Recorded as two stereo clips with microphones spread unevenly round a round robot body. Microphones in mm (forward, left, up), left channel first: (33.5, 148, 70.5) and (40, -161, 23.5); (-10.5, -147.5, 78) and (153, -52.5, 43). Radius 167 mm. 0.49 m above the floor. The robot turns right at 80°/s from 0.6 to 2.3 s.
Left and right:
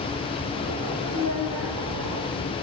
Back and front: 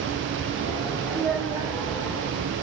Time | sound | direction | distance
1.1 | a child speaking | 80° right | 3 m